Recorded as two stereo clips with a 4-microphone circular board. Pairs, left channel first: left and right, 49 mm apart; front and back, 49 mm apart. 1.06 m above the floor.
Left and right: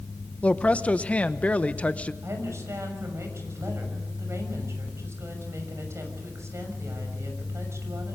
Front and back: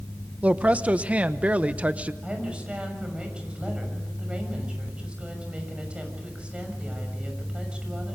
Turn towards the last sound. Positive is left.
turn(degrees=-110)